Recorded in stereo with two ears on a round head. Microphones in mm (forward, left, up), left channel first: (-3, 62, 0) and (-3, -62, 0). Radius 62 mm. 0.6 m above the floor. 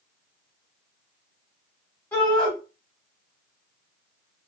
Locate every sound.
2.1 s a shout: 15° left (ahead or behind), 1.9 m